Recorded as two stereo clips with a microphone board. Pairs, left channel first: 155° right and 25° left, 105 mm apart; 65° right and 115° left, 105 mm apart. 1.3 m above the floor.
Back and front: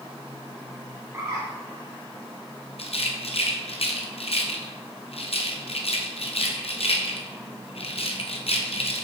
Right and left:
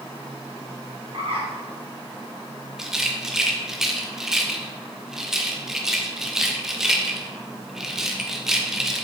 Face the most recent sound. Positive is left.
turn(degrees=-160)